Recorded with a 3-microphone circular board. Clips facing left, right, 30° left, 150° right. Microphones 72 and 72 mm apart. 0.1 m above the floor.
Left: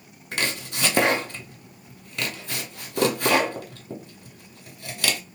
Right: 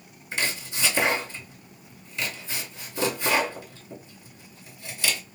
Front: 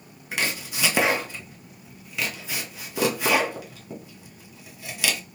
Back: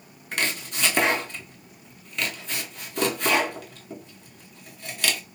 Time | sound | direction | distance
0.3 | chopping | 115° left | 1.0 m